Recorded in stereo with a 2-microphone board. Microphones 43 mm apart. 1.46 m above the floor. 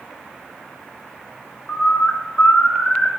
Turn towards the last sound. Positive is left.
turn(degrees=40)  # may be behind; listen again after turning